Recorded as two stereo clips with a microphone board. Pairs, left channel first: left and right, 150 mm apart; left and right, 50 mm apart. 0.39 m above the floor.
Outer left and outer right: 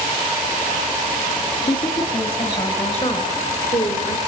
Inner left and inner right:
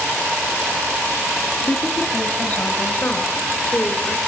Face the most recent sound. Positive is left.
turn(degrees=50)  # may be behind; listen again after turning